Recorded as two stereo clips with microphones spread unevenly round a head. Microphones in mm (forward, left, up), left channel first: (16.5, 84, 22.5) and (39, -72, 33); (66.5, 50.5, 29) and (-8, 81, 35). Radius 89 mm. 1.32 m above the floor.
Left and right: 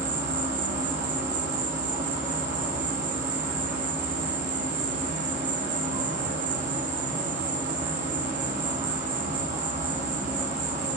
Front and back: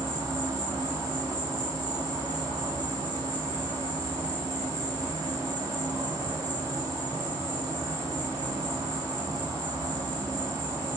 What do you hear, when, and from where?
0.0 s an insect: 135° right, 3 m